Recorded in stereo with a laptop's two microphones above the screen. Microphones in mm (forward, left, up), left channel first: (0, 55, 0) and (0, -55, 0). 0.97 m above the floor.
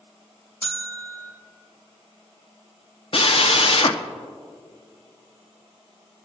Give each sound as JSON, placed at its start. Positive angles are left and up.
{"t": 0.6, "sound": "a bell", "side_deg": 20, "distance_m": 1.8}
{"t": 3.1, "sound": "a drill", "side_deg": 60, "distance_m": 0.7}